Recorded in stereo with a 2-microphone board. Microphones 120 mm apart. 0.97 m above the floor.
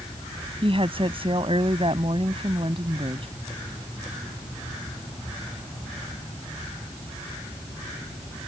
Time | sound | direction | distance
0.6 | a woman speaking | 50° right (ahead or behind) | ?